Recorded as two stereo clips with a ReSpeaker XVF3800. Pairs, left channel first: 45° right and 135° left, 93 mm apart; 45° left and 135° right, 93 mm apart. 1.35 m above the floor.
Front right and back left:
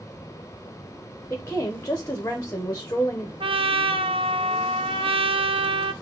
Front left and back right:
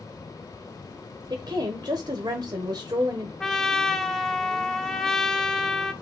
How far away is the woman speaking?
About 0.9 m.